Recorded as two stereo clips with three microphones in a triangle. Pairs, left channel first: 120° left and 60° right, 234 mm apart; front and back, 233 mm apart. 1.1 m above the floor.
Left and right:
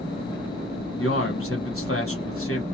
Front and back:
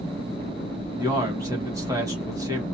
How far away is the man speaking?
About 1.4 m.